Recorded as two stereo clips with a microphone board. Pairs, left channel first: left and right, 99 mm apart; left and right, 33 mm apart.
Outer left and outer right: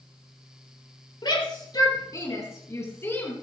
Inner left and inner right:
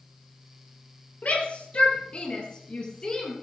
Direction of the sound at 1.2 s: 55° left (ahead or behind).